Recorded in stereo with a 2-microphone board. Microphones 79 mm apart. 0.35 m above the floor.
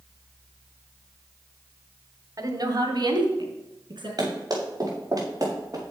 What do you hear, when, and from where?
2.4 s a woman speaking: 50° right (ahead or behind), 1.4 m; by 4.1 s 80° right, 4 m
4.2 s running footsteps: 50° right (ahead or behind), 5 m; by 5.8 s 40° right (ahead or behind), 5 m